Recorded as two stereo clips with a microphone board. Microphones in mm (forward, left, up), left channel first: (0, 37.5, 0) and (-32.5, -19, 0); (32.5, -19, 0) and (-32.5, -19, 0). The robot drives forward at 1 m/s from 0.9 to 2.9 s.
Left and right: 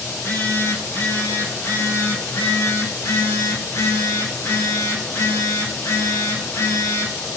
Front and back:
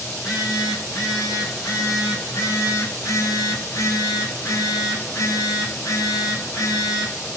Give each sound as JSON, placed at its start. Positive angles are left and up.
{"t": 0.1, "sound": "a phone buzzing", "azimuth_deg": 15, "distance_m": 5.0}